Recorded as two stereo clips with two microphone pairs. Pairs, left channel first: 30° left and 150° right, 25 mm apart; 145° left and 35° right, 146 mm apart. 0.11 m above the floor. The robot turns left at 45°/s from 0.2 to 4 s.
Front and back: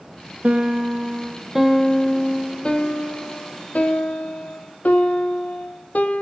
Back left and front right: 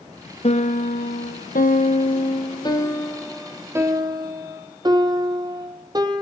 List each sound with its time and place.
0.4 s a piano: 175° right, 1.0 m; by 6.2 s 25° left, 1.0 m